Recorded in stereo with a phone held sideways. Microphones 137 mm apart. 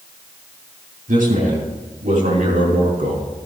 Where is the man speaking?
80° right, 8.5 m.